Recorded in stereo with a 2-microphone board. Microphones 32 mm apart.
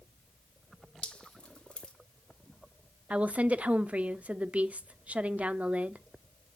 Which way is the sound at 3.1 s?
50° right (ahead or behind).